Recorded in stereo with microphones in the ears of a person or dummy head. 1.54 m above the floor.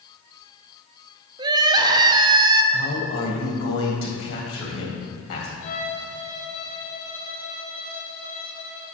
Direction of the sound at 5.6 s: 45° left (ahead or behind).